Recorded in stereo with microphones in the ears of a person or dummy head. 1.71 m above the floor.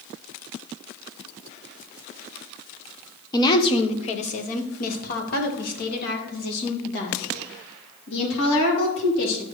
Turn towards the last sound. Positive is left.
turn(degrees=65)  # may be behind; listen again after turning